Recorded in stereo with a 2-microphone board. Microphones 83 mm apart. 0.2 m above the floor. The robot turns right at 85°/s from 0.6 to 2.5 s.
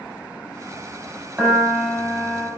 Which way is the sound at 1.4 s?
15° right (ahead or behind).